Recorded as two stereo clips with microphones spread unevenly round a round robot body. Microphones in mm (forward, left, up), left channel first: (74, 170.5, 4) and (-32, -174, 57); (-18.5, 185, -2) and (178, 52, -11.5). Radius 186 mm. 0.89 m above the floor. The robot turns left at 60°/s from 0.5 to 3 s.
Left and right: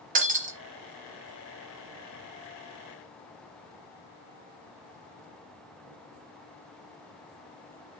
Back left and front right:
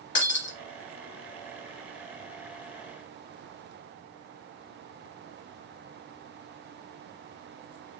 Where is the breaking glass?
170° right, 1.3 m; by 0.6 s 175° right, 1.3 m.